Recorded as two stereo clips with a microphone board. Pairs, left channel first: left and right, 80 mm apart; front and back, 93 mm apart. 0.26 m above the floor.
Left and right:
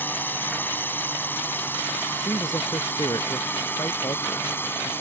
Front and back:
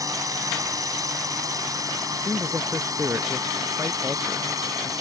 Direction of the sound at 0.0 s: 145° left.